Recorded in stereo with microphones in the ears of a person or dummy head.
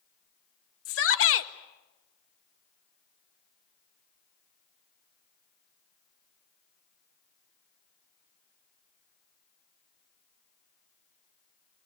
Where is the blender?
No blender in this recording.